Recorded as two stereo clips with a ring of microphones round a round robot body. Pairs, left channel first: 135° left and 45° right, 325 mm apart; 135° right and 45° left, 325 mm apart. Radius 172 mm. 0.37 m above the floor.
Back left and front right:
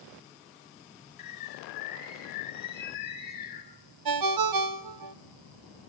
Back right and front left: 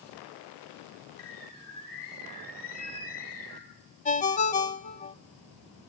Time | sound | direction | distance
1.2 | a bird | 165° right | 5 m
4.0 | a ringtone | 65° right | 1.2 m